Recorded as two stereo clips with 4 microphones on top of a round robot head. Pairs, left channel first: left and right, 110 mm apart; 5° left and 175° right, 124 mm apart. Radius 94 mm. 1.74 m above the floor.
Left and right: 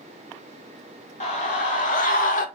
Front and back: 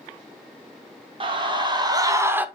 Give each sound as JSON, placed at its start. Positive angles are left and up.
{"t": 1.2, "sound": "a scream", "azimuth_deg": 135, "distance_m": 2.5}